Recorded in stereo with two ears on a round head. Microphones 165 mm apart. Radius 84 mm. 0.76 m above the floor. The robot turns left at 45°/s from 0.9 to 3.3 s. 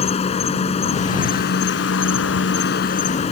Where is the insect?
140° left; by 3.3 s 35° left.